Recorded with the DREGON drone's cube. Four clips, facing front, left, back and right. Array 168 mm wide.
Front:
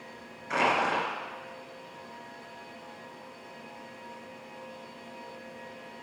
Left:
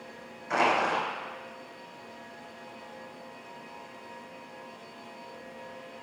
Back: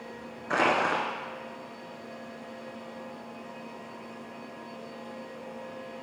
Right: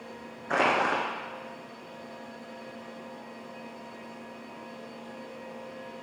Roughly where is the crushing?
Behind right.